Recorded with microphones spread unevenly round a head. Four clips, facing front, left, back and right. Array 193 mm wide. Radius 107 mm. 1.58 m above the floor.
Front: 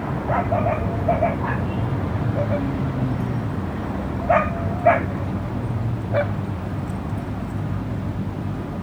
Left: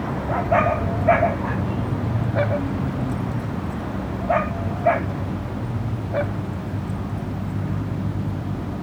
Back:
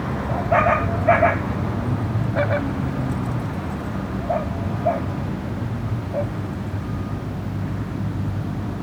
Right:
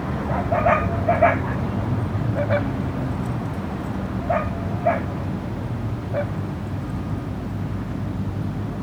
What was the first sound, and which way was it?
Only background noise.